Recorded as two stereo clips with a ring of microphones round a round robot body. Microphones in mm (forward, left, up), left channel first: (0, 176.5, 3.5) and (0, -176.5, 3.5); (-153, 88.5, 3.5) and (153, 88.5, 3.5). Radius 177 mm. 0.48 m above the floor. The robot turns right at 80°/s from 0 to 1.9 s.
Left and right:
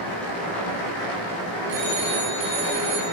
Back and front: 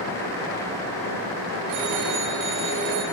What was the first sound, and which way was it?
A phone ringing, 35° right.